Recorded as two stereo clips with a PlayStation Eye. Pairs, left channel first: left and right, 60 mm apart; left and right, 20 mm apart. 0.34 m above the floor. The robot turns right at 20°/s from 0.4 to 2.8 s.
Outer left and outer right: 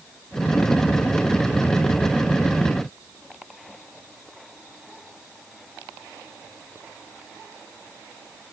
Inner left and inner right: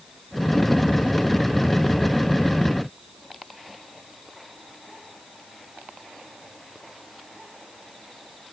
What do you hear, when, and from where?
Only background noise.